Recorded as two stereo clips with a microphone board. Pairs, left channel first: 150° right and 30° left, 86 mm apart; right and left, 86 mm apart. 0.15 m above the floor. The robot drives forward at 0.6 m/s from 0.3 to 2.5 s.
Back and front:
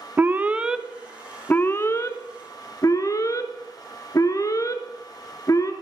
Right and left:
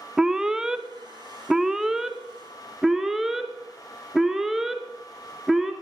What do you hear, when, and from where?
0.2 s an alarm: 15° left, 0.8 m; by 5.7 s 175° left, 1.2 m